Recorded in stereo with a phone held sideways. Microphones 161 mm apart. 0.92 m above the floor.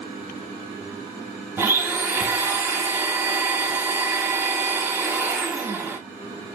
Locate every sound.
1.6 s a blender: 15° right (ahead or behind), 1.0 m